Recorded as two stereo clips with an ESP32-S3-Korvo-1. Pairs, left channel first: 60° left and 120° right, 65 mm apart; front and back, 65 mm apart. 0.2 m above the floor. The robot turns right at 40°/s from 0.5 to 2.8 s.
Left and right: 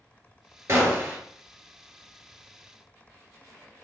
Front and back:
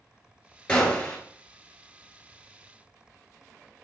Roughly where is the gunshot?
Right.